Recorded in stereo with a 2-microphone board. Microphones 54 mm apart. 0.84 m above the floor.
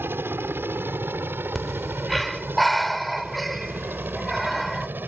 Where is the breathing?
5° left (ahead or behind).